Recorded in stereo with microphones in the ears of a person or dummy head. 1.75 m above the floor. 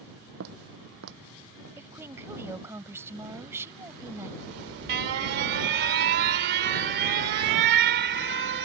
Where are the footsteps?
60° right (ahead or behind); by 1.7 s 70° right (ahead or behind).